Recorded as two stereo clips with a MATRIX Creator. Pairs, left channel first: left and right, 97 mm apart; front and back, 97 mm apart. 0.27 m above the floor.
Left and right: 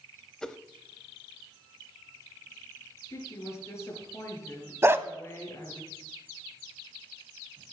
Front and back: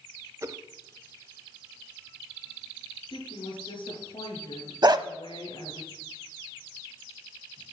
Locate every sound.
0.4 s a whoosh: 165° left, 0.5 m
3.1 s a woman speaking: 30° left, 4 m
4.8 s a dog barking: 150° right, 0.6 m